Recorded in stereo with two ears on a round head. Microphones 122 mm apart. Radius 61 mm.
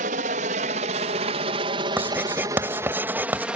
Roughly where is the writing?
Centre.